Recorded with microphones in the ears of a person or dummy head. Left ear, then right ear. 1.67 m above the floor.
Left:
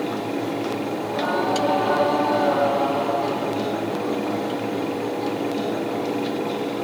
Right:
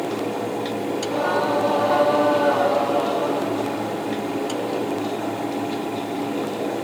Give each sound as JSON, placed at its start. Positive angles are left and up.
{"t": 1.0, "sound": "singing", "side_deg": -10, "distance_m": 3.0}